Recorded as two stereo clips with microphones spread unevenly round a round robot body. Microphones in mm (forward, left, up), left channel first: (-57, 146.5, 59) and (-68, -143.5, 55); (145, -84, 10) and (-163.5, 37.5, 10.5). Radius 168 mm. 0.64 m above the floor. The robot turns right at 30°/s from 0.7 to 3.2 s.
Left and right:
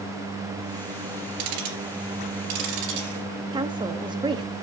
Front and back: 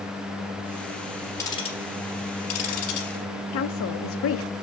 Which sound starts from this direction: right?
Ticking, at 1.4 s.